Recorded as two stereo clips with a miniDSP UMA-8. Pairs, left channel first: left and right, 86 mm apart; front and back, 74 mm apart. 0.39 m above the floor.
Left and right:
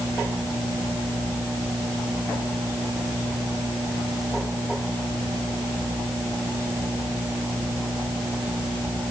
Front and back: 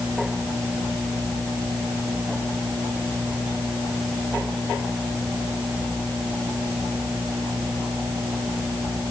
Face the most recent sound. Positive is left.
No sound to turn to.